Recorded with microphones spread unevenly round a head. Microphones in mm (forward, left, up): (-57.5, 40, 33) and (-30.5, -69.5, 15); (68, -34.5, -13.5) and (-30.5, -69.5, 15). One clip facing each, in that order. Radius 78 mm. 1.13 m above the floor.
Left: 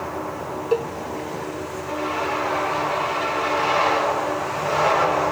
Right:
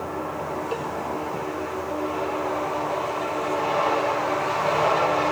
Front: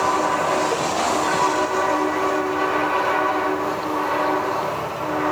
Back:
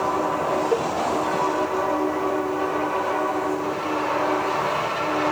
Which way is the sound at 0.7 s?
140° left.